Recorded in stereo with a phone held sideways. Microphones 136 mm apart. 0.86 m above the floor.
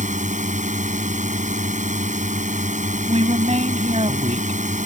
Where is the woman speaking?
50° right (ahead or behind).